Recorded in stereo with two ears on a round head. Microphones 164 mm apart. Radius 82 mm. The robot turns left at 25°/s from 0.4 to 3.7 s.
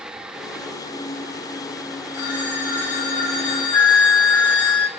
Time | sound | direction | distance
2.1 | a phone ringing | 70° left | 4 m
3.7 | a flute | 70° left (ahead or behind) | 0.7 m